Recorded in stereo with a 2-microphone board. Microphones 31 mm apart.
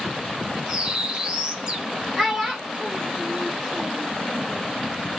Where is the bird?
30° right (ahead or behind), 1.0 m.